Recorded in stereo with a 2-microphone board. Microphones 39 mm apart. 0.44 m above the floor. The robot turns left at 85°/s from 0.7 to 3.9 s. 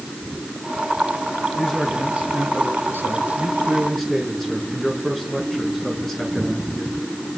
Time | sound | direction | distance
1.6 | a man speaking | 15° left | 5.5 m